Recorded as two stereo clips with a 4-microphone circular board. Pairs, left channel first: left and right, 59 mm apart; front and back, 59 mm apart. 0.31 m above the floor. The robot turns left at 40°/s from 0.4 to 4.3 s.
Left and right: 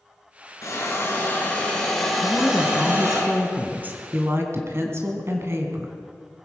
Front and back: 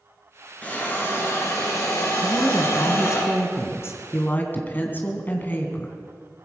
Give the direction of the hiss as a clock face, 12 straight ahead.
10 o'clock.